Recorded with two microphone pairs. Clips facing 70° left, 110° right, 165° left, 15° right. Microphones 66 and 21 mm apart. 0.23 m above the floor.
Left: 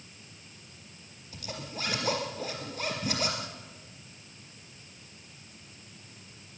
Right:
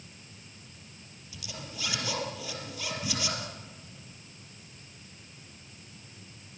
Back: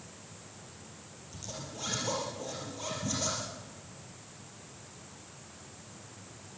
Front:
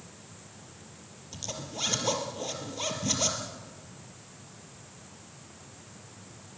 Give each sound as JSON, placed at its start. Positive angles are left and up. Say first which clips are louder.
{"t": 1.3, "sound": "a zipper", "louder": "left 4 dB, front 5 dB", "azimuth_deg": 25, "distance_m": 4.0}